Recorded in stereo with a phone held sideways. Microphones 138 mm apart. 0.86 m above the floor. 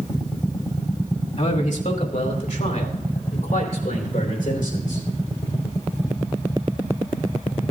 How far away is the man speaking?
About 2 m.